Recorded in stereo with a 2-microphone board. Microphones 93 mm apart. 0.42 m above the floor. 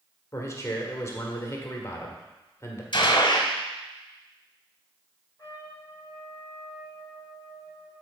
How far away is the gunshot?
About 1.1 m.